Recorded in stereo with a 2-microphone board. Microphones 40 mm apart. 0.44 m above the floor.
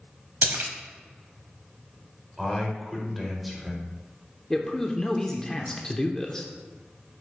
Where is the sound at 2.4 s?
Centre (ahead or behind), 1.8 m.